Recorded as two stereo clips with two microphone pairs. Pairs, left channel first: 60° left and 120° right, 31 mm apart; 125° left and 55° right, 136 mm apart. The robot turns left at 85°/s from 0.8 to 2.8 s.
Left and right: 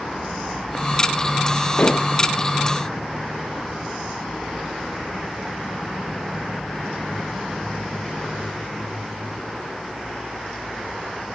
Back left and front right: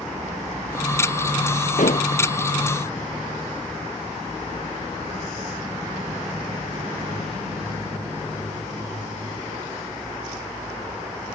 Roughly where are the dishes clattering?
Left.